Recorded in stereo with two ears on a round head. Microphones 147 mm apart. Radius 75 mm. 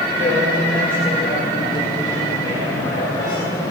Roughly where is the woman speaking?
Left.